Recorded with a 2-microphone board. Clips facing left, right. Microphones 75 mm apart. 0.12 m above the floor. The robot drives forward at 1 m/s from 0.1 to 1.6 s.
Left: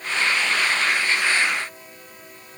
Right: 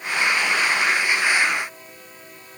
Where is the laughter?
I don't hear laughter.